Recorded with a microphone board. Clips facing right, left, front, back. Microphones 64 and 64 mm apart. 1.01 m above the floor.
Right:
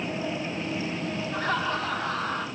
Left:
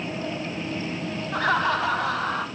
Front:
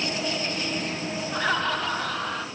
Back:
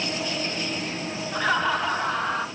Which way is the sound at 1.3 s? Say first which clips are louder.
Left 6 dB, back 3 dB; 85° left.